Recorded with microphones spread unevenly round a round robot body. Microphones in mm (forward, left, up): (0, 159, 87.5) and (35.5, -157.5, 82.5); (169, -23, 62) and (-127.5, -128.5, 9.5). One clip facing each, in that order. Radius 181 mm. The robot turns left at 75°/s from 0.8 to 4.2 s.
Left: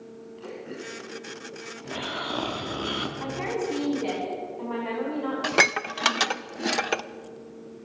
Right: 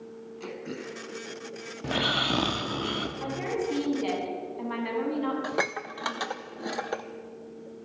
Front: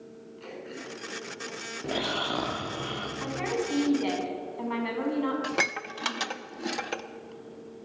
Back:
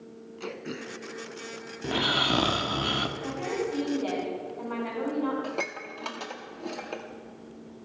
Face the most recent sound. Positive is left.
turn(degrees=75)